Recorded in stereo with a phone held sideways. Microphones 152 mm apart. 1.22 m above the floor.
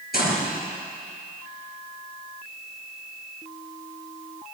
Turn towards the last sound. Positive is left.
turn(degrees=80)